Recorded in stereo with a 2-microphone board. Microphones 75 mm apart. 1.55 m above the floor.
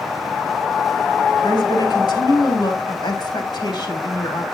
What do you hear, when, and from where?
1.4 s a woman speaking: 70° left (ahead or behind), 3.5 m